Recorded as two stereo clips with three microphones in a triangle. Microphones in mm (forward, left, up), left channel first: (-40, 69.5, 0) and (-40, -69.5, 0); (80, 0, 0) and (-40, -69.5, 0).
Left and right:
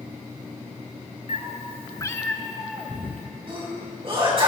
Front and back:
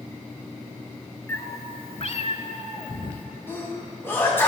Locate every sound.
1.3 s a cat meowing: 100° left, 0.8 m; by 3.3 s 20° right, 1.4 m
3.5 s a sneeze: 45° right, 3.5 m